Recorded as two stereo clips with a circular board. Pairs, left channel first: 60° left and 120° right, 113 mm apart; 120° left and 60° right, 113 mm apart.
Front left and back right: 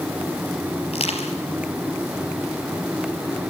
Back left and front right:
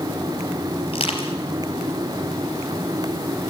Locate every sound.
0.9 s crushing: 85° left, 4 m